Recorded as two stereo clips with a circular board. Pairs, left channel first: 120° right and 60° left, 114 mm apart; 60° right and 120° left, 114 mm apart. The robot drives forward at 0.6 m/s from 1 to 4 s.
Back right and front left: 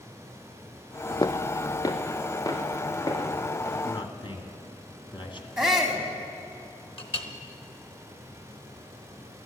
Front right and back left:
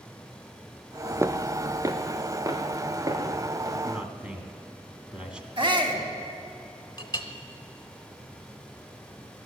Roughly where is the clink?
Right.